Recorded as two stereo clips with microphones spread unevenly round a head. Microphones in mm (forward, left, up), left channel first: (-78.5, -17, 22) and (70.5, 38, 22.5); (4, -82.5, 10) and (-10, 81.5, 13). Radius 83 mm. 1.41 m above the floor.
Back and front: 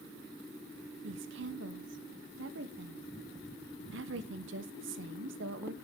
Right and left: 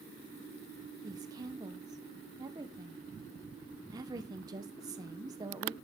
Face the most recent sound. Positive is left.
turn(degrees=25)